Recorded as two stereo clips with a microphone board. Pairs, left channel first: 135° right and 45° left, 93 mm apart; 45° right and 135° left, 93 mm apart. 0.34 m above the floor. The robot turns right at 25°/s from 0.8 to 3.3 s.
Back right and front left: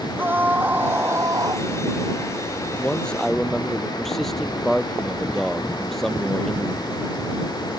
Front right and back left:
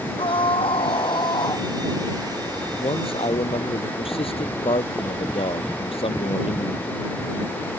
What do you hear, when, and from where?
0.2 s a scream: 25° right; by 1.7 s straight ahead
2.8 s a man speaking: 60° right; by 7.8 s 50° right